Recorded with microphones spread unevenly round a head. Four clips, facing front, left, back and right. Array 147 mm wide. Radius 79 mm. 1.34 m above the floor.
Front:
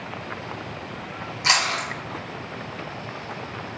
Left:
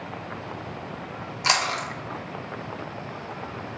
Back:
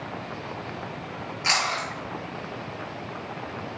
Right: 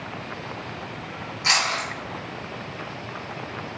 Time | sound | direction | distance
1.4 | chewing | 95° left | 0.5 m